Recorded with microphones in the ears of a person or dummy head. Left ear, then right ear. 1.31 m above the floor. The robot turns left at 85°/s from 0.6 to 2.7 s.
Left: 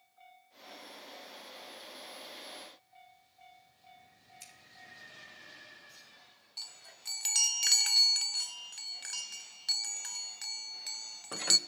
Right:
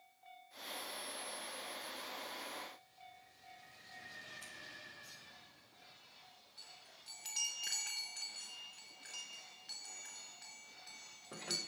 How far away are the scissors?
About 4 m.